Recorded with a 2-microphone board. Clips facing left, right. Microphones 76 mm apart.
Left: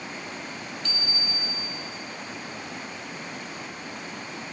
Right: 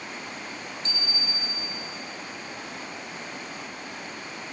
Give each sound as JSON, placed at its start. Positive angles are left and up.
{"t": 0.8, "sound": "a bicycle bell", "side_deg": -30, "distance_m": 5.0}